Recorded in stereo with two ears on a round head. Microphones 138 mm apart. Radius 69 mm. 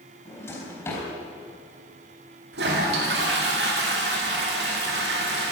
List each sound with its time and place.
0.2 s a drawer: 15° left (ahead or behind), 4 m
2.5 s a toilet flushing: 80° right, 2.5 m